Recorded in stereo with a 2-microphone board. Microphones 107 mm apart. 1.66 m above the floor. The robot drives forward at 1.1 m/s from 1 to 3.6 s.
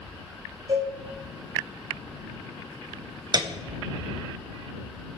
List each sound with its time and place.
0.7 s a cowbell: 50° right (ahead or behind), 6.5 m
3.3 s a piano: 40° right (ahead or behind), 0.8 m; by 3.5 s 45° right (ahead or behind), 0.7 m